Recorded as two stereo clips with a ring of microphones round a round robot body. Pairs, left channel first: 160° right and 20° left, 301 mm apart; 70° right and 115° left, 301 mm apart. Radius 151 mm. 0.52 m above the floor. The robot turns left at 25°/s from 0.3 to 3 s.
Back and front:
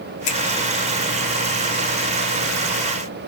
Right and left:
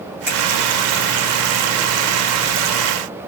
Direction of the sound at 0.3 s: 160° right.